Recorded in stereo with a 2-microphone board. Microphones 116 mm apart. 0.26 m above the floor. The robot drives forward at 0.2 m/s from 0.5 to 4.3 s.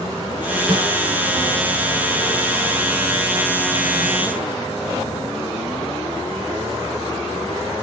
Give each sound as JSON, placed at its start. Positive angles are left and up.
{"t": 0.7, "sound": "a snare drum", "side_deg": -45, "distance_m": 1.8}